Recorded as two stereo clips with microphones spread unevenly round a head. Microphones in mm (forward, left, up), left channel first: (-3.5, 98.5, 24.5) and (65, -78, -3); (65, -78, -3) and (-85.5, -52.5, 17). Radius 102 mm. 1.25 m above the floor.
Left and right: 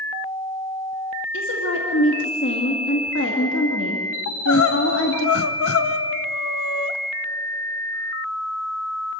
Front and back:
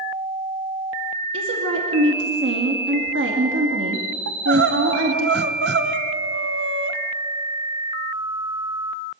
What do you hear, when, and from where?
1.3 s a woman speaking: 150° left, 2 m
4.3 s crying: 135° left, 1.0 m